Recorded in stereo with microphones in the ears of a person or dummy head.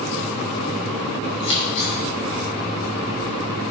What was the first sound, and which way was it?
Scissors, 70° left (ahead or behind).